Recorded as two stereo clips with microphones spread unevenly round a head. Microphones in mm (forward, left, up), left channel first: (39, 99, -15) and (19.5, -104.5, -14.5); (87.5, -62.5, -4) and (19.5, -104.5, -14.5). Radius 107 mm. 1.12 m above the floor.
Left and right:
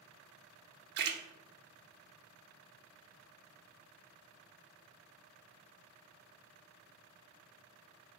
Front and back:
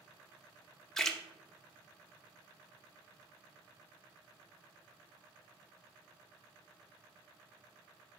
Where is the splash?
60° right, 0.5 m.